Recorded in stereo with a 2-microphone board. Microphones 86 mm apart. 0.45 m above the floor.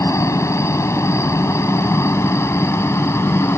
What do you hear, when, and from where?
0.0 s a helicopter: 35° left (ahead or behind); by 3.6 s 30° left (ahead or behind)